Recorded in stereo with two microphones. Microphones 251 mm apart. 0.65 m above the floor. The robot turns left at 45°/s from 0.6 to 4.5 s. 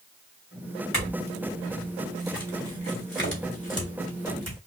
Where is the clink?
55° left (ahead or behind), 3 m; by 4.6 s 75° right (ahead or behind), 3 m.